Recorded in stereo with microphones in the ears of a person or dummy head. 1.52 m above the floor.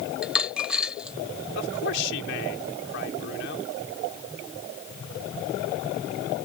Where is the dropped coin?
Centre (ahead or behind).